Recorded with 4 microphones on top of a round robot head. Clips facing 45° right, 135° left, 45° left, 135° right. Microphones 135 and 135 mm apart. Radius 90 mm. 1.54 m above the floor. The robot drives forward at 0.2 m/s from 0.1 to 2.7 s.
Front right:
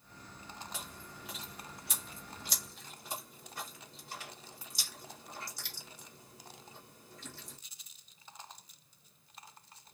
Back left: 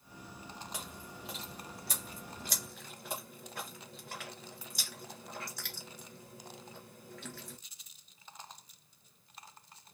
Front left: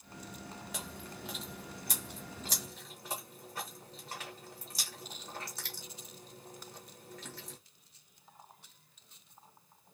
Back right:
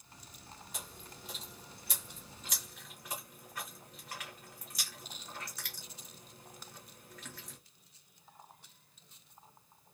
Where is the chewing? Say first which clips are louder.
Back left 2 dB, front left 6 dB; 60° left, 0.8 m; by 7.6 s 100° left, 0.8 m.